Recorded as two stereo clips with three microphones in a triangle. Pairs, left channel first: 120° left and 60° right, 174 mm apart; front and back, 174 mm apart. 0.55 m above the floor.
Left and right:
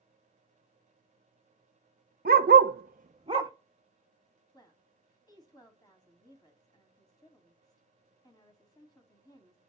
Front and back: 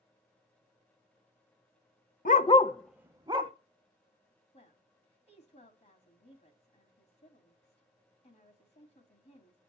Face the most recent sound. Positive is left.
turn(degrees=55)